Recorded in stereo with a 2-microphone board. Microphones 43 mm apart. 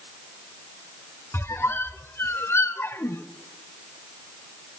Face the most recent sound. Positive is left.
turn(degrees=80)